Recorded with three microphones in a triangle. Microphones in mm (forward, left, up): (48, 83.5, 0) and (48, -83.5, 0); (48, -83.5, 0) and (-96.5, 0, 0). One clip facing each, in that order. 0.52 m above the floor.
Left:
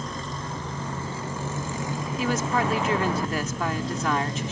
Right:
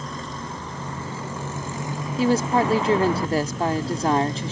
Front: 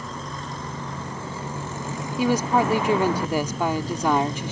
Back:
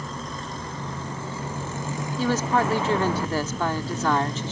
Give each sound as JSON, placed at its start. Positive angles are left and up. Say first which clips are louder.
{"t": 2.2, "sound": "a woman speaking", "louder": "right 6 dB, front 2 dB", "azimuth_deg": -95}